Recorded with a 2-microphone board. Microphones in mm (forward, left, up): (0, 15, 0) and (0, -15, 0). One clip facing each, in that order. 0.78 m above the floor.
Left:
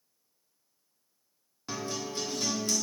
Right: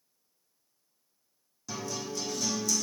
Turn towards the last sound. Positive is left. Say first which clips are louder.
# left 1 dB
turn(degrees=40)  # may be behind; listen again after turning